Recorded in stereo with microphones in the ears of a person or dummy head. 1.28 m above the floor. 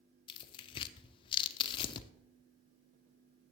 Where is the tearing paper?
30° left (ahead or behind), 0.6 m.